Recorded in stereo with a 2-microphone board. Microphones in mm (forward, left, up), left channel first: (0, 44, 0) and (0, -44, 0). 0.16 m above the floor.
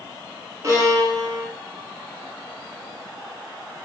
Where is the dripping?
No dripping in this recording.